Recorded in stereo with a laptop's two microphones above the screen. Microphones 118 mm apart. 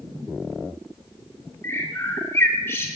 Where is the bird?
20° left (ahead or behind), 0.8 m.